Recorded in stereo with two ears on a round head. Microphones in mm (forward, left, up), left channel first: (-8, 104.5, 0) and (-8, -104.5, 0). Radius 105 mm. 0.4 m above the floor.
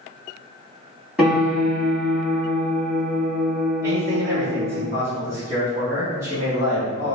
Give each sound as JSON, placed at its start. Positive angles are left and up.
{"t": 1.2, "sound": "a piano", "side_deg": -5, "distance_m": 1.8}
{"t": 3.8, "sound": "a man speaking", "side_deg": -15, "distance_m": 1.7}